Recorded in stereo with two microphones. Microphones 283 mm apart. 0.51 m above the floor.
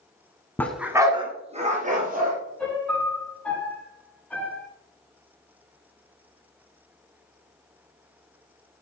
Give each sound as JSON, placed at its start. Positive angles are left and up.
{"t": 0.6, "sound": "a dog barking", "side_deg": 5, "distance_m": 1.1}
{"t": 2.6, "sound": "a piano", "side_deg": 5, "distance_m": 4.5}